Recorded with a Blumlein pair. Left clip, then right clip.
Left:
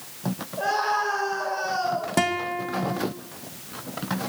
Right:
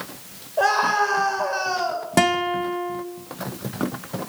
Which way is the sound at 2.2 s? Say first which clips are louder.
Right 8 dB; 15° right.